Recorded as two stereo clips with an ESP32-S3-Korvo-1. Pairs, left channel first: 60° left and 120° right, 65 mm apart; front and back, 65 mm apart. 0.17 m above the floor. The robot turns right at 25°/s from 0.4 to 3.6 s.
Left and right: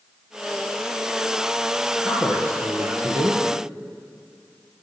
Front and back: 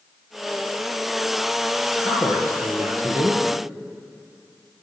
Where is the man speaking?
165° right, 3 m; by 3.4 s 130° right, 3 m.